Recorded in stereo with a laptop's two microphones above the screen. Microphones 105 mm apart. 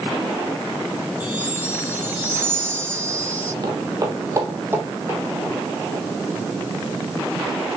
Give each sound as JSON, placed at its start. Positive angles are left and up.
{"t": 1.2, "sound": "a chime", "side_deg": -15, "distance_m": 3.5}
{"t": 3.6, "sound": "footsteps", "side_deg": -35, "distance_m": 1.7}